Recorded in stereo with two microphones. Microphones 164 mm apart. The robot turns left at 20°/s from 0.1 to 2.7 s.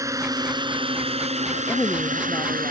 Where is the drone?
20° right; by 2.7 s 70° right.